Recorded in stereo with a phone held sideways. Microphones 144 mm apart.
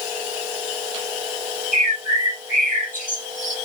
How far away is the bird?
About 2.5 m.